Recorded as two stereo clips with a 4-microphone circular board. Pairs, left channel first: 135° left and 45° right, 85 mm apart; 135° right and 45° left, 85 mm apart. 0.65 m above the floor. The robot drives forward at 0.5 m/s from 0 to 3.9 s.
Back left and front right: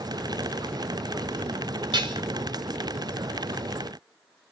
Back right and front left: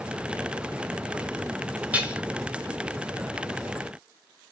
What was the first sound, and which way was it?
Dishes clattering, 25° right.